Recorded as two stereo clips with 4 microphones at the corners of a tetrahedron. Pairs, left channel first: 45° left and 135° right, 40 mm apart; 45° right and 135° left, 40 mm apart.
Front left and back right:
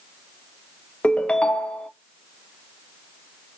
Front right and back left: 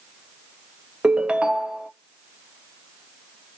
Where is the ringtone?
90° left, 0.6 m.